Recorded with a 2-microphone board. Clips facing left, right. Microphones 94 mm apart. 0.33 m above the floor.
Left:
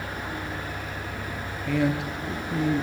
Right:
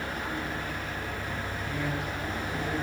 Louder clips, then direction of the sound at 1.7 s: Left 10 dB; 75° left (ahead or behind).